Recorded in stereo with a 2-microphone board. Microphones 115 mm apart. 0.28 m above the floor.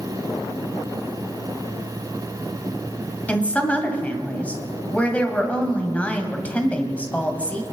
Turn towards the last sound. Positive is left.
turn(degrees=10)  # may be behind; listen again after turning